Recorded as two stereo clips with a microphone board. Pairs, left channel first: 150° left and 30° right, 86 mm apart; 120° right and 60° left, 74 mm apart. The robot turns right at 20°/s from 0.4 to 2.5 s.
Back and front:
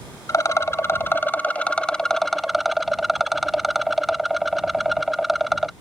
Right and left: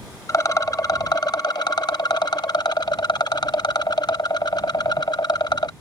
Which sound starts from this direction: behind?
A rattle, at 0.3 s.